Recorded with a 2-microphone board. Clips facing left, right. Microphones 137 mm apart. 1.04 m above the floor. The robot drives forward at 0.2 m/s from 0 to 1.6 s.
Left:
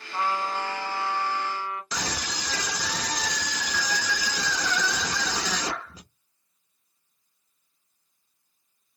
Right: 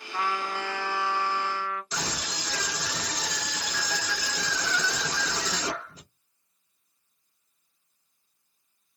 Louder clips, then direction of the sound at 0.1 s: Left 2 dB; 35° left (ahead or behind).